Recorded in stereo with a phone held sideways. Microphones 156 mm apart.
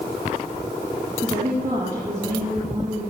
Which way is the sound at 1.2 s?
30° right (ahead or behind).